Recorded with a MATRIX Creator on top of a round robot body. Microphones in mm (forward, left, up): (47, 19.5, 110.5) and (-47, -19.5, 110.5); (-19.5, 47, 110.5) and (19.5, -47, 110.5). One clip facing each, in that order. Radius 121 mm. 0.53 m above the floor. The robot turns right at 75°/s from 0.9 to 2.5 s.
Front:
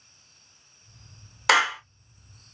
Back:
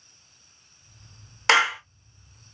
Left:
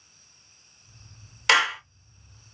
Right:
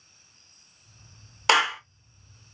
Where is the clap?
55° right, 1.2 m; by 1.8 s 35° right, 1.2 m.